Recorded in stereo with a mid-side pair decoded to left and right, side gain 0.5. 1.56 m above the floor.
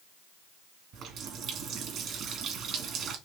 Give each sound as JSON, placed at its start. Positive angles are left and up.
{"t": 0.9, "sound": "a running tap", "azimuth_deg": -60, "distance_m": 1.9}